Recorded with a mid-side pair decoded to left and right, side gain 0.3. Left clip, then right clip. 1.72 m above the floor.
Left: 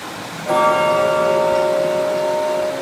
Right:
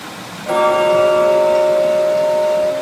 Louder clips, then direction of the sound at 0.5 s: Right 1 dB; 20° right.